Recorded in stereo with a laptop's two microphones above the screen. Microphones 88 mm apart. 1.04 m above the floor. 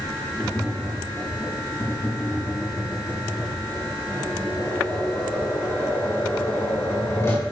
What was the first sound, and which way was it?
Tapping, 30° left (ahead or behind).